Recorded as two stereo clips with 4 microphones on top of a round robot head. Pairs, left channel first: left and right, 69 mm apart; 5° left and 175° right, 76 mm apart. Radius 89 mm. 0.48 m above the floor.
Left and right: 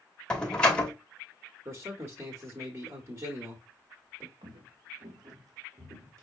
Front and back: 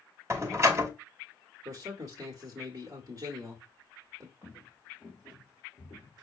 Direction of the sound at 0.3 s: 160° left.